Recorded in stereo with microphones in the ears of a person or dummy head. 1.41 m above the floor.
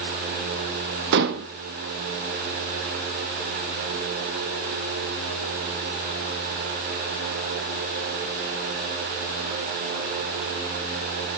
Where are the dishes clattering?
60° right (ahead or behind), 1.2 m.